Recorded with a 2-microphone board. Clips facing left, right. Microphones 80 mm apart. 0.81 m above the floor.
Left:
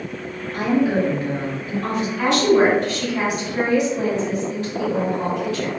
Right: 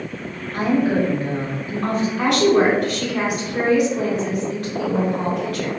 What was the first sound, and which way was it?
A woman speaking, 35° right (ahead or behind).